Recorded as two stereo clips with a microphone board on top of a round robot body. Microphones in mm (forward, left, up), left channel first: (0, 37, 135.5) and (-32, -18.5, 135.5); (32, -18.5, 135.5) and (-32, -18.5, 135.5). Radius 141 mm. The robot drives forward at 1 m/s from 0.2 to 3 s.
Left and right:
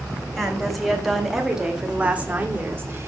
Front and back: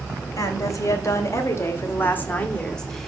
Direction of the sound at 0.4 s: 25° right.